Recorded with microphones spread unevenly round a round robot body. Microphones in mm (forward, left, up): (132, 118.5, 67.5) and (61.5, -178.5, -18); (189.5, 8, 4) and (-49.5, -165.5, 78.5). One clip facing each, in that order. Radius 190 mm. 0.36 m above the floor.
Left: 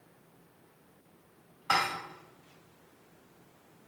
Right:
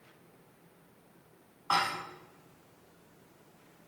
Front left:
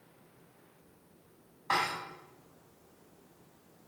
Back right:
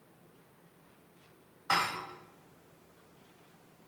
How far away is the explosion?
No explosion in this recording.